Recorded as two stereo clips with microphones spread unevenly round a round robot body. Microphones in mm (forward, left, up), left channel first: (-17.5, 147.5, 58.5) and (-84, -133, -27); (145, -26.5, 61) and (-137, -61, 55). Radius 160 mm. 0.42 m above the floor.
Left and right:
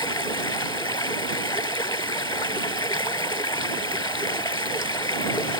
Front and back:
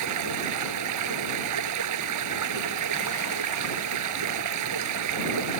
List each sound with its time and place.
0.0 s running water: 155° left